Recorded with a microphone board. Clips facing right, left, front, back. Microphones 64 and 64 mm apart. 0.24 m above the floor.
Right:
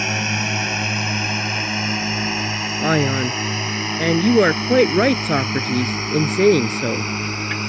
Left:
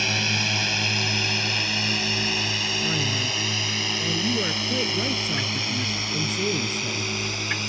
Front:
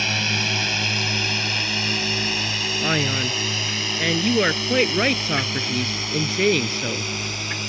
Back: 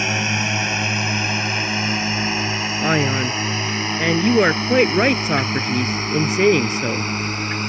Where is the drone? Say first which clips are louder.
Right 3 dB, back 3 dB; 130° right; by 7.7 s 135° right.